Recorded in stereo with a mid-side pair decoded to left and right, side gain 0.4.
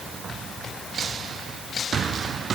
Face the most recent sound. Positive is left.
No sound to turn to.